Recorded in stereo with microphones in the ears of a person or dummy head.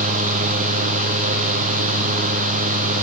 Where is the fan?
40° right (ahead or behind), 0.7 m.